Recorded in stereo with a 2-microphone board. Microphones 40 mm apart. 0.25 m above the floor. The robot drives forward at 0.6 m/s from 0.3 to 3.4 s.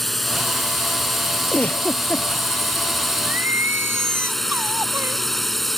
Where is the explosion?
No explosion in this recording.